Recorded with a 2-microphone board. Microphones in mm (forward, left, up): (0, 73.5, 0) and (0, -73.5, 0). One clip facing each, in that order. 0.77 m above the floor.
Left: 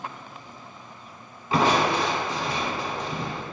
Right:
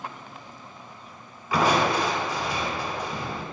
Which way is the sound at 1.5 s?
25° left (ahead or behind).